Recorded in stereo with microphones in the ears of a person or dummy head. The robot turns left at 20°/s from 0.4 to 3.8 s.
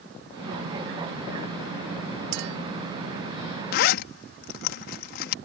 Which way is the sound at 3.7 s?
55° left (ahead or behind).